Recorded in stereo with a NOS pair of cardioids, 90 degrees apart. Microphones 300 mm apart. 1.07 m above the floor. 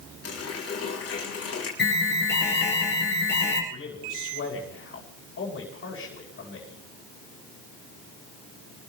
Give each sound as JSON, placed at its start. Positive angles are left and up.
{"t": 0.2, "sound": "a running tap", "azimuth_deg": 50, "distance_m": 6.0}
{"t": 1.8, "sound": "an alarm", "azimuth_deg": 35, "distance_m": 8.5}
{"t": 3.7, "sound": "a man speaking", "azimuth_deg": 45, "distance_m": 9.5}